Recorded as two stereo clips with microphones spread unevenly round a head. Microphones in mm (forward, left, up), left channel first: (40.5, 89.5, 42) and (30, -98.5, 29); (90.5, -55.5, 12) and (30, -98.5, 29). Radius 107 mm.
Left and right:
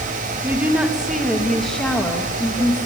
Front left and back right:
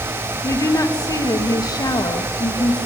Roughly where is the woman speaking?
Ahead.